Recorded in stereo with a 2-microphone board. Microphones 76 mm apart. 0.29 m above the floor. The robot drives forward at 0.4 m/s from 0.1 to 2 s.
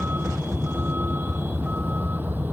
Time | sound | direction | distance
0.0 | a vehicle | 30° right (ahead or behind) | ?